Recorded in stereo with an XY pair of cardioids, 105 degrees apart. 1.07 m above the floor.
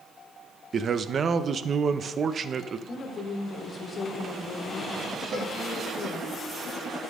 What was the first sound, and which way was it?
A man speaking, 40° right.